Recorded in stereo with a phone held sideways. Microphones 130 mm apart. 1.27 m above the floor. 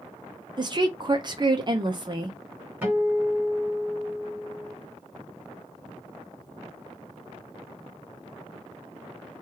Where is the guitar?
15° right (ahead or behind), 1.6 m.